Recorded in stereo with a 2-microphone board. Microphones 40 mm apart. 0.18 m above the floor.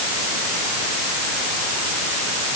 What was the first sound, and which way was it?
Only background noise.